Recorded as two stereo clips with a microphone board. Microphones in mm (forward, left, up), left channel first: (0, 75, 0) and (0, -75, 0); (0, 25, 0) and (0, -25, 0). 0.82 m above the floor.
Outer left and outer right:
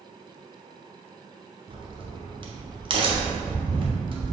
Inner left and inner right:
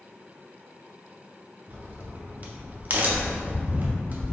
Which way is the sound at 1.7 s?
35° right (ahead or behind).